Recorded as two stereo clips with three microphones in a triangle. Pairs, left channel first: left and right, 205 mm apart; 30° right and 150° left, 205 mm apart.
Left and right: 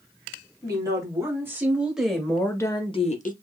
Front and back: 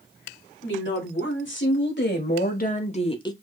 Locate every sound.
0.6 s a woman speaking: 20° right, 2.0 m; by 3.3 s 40° left, 0.8 m